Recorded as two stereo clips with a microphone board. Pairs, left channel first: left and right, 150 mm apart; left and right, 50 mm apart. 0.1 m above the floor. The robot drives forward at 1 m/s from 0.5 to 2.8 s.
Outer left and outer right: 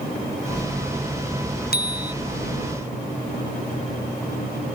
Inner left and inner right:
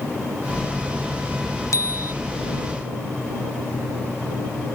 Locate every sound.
1.7 s a bicycle bell: 75° left (ahead or behind)